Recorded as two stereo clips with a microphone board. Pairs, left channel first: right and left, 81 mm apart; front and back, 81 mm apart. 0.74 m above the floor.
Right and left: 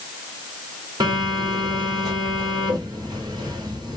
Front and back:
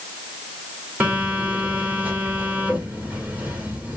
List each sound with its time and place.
1.0 s a phone buzzing: 115° left, 2.5 m